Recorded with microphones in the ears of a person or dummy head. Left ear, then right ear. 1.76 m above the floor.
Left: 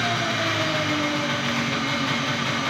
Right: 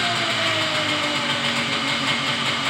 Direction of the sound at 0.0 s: 35° right (ahead or behind).